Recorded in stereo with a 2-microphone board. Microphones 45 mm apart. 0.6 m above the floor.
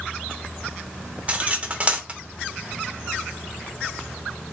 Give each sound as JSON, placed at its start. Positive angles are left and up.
{"t": 1.3, "sound": "cutlery clinking", "side_deg": -30, "distance_m": 0.7}